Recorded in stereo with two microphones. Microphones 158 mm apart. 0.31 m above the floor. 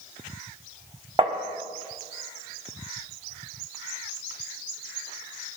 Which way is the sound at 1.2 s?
30° right (ahead or behind).